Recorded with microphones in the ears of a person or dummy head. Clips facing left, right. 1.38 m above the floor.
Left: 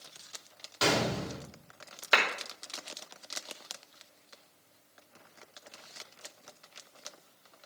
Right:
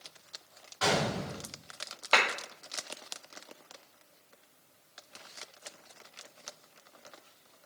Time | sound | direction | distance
0.8 | a gunshot | 50° left (ahead or behind) | 3.5 m
2.1 | a clap | 15° left (ahead or behind) | 2.5 m